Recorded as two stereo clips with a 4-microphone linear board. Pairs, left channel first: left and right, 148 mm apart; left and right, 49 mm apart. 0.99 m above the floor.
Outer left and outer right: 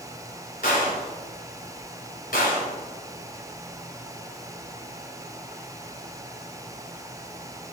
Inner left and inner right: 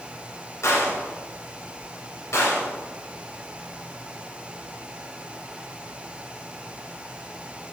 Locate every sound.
0.6 s a gunshot: 75° left (ahead or behind), 2.5 m